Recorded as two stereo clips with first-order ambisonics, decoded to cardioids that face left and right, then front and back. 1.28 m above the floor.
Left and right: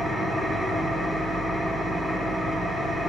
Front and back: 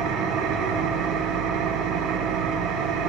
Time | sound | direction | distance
0.0 | an engine running | straight behind | 4 m